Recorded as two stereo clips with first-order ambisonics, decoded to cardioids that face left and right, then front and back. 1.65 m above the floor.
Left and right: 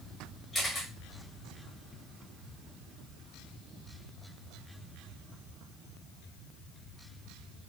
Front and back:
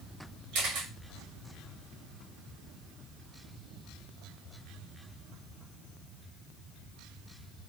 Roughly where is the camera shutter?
Behind.